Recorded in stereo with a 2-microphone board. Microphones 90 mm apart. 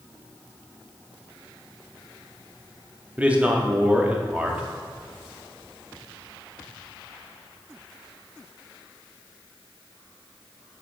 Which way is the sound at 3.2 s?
15° right (ahead or behind).